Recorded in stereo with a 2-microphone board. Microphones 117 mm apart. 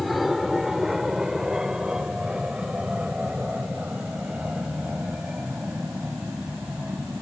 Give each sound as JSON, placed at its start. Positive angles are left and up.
{"t": 0.0, "sound": "an aircraft", "side_deg": 0}